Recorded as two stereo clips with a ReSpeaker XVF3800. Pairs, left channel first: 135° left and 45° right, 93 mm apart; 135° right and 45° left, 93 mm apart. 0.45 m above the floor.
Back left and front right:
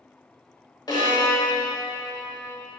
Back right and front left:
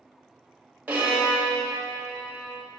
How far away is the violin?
About 2 m.